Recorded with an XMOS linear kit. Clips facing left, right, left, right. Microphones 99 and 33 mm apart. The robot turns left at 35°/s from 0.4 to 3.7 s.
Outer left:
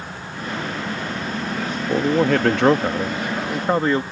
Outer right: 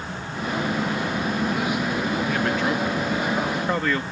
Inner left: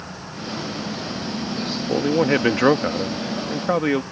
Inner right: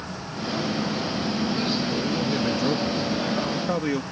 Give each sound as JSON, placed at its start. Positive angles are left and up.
{"t": 1.9, "sound": "a man speaking", "azimuth_deg": 90}